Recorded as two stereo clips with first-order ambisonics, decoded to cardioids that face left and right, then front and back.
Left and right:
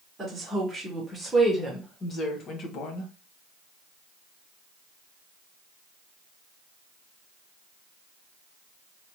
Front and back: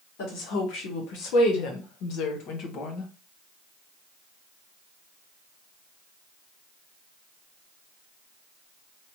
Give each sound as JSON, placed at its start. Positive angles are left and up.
{"t": 0.2, "sound": "a woman speaking", "azimuth_deg": -10, "distance_m": 1.6}